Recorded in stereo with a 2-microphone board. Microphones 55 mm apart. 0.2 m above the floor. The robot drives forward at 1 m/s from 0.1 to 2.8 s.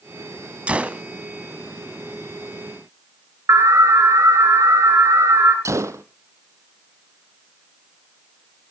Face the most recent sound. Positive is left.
turn(degrees=-65)  # may be behind; listen again after turning